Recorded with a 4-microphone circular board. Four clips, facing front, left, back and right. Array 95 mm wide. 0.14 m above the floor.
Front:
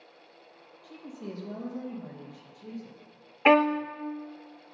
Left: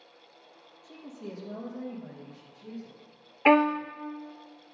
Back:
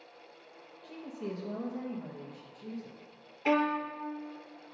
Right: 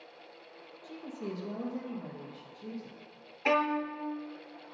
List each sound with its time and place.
0.8 s a woman speaking: 140° right, 3 m; by 3.0 s 125° right, 5 m
3.5 s a violin: 40° left, 0.6 m